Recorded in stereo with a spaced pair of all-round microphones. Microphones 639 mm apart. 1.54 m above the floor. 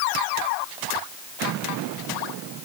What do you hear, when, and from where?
Only background noise.